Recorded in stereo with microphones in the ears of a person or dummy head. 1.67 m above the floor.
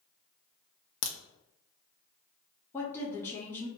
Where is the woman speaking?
10° left (ahead or behind), 0.8 m.